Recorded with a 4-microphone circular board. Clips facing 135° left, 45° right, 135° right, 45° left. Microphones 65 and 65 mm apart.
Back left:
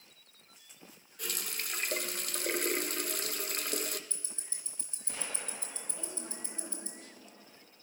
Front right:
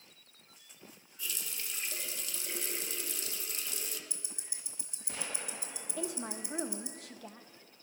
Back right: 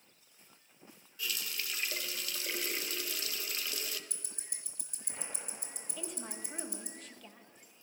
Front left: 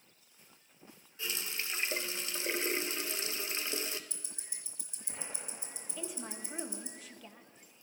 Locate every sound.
1.2 s a running tap: 110° left, 0.5 m
4.1 s ticking: 120° right, 2 m
6.0 s a woman speaking: 40° right, 1.0 m